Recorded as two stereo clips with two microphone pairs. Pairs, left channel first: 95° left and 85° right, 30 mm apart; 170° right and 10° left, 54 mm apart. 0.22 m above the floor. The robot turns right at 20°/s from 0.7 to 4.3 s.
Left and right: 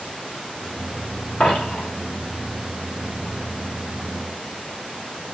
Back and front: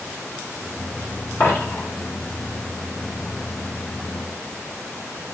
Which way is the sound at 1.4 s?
145° left.